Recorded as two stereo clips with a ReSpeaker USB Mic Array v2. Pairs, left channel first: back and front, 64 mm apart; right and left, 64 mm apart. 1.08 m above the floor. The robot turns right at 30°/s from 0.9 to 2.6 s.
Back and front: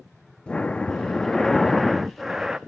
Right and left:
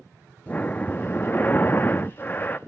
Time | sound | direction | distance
0.5 | breathing | 120° right | 0.5 m